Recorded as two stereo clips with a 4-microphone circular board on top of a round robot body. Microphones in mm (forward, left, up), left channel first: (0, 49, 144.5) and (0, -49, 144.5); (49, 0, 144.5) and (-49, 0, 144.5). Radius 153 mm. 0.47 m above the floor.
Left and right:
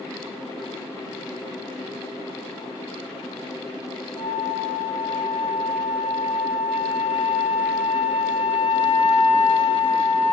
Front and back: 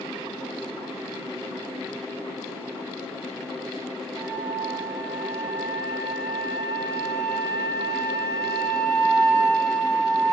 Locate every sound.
4.1 s a flute: 40° left, 9.5 m